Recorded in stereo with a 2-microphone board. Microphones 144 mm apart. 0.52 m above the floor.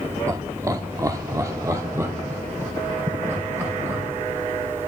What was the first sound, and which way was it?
Laughter, 20° right (ahead or behind).